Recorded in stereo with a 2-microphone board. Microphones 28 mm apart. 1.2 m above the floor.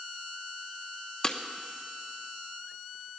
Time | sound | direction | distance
1.2 | breaking glass | 25° left (ahead or behind) | 0.9 m